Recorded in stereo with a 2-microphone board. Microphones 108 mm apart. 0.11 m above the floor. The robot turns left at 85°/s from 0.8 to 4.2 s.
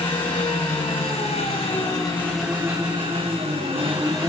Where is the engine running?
135° left, 1.8 m; by 4.3 s 150° right, 1.8 m.